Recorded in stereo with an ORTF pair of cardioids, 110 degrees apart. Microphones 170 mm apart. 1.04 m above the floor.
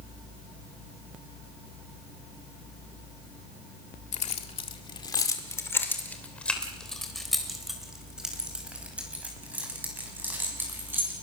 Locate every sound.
4.1 s keys jangling: 45° left, 1.8 m; by 11.1 s 15° right, 7 m